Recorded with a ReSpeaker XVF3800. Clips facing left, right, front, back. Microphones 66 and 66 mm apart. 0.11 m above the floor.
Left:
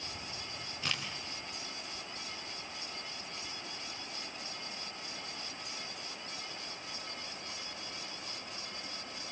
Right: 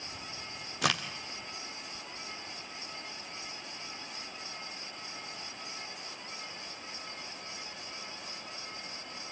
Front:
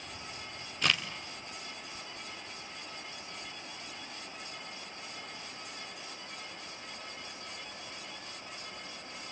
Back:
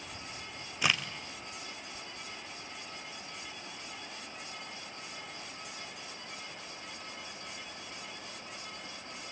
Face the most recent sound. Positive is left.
turn(degrees=-100)